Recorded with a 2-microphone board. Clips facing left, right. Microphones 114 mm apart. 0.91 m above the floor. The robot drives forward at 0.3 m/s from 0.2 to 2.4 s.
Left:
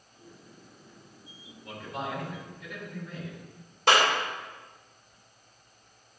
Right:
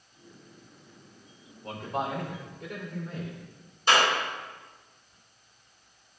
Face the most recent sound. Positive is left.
turn(degrees=80)